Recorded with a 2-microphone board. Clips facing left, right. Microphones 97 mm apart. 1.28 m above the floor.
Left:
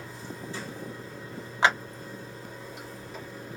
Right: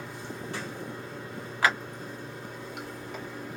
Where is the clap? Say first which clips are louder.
Left 2 dB; 25° left (ahead or behind), 0.8 m.